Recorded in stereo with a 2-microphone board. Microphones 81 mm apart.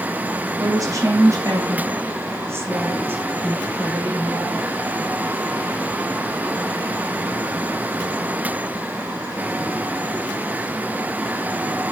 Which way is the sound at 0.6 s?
45° right (ahead or behind).